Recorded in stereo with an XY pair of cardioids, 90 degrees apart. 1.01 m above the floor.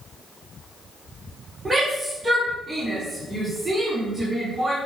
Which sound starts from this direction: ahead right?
A shout, at 1.6 s.